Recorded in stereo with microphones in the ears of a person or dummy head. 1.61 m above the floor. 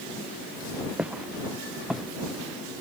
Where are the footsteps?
5° right (ahead or behind).